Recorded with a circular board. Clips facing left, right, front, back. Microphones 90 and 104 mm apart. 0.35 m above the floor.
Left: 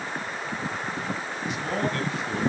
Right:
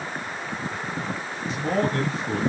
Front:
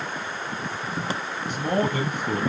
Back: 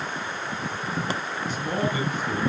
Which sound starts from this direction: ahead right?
A man speaking, at 1.5 s.